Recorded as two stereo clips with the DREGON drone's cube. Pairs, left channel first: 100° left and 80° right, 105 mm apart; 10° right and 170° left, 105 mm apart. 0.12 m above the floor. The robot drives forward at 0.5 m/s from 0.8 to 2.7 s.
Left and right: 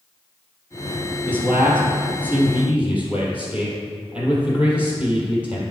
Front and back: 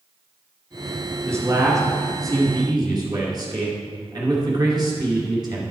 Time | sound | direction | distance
1.2 | a man speaking | 140° right | 1.8 m